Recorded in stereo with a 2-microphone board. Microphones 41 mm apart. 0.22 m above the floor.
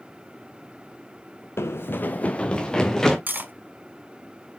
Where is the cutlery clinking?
45° right (ahead or behind), 1.2 m.